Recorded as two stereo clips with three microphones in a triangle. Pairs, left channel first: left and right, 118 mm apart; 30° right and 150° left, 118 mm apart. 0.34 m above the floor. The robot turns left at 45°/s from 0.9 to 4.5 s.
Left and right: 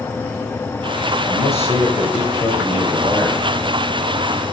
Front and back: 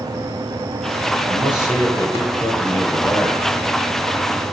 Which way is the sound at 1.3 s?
115° left.